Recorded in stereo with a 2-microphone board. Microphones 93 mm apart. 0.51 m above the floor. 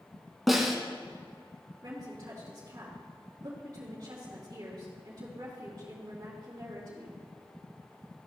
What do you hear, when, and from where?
0.5 s a snare drum: centre (ahead or behind), 1.4 m
1.8 s a woman speaking: 40° right (ahead or behind), 3 m